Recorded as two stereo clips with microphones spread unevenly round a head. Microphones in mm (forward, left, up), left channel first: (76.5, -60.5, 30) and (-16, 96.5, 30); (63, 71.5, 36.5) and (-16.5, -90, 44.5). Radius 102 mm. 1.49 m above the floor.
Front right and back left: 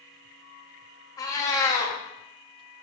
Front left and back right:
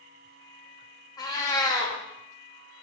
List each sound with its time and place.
1.2 s a cat meowing: straight ahead, 1.0 m